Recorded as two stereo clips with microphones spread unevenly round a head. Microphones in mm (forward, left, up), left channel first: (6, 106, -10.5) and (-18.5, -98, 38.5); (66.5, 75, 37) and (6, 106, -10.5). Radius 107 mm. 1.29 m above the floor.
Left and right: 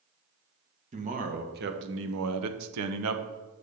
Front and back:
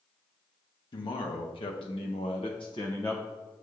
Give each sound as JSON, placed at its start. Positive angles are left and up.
{"t": 0.9, "sound": "a man speaking", "azimuth_deg": -35, "distance_m": 1.2}